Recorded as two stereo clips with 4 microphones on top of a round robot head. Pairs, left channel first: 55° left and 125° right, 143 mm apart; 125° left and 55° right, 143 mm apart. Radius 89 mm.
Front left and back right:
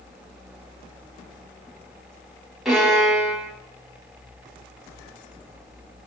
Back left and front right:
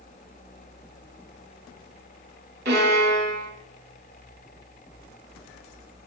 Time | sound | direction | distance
2.6 | a violin | 40° right | 9 m